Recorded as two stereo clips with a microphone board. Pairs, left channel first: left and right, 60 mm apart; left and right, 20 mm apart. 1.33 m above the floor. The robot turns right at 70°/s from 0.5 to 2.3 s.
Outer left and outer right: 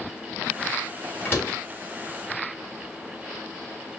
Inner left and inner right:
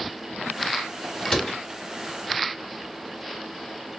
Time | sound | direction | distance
1.2 | a door slam | 45° left (ahead or behind) | 1.7 m